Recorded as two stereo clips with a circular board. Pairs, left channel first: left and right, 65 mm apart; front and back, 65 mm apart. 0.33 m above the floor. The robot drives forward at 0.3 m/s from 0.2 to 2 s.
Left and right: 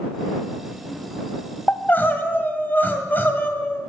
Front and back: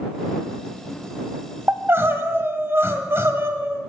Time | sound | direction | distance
1.7 | crying | 135° left | 1.4 m